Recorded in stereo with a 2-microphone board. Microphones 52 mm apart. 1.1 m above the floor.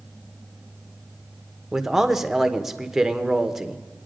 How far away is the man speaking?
About 0.9 m.